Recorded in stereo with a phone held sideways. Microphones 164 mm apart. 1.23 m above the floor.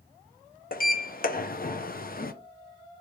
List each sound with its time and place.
0.7 s a sliding door: 55° left (ahead or behind), 0.5 m